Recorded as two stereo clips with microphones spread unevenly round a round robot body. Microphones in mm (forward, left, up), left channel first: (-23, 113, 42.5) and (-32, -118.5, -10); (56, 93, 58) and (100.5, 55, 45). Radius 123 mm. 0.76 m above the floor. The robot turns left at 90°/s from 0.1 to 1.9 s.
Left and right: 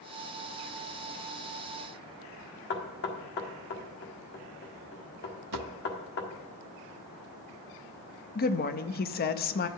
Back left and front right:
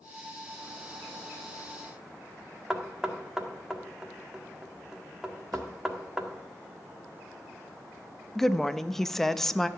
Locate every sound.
2.7 s knocking: 40° left, 1.6 m
5.5 s a drawer: 85° right, 0.6 m
8.3 s a woman speaking: 40° left, 0.7 m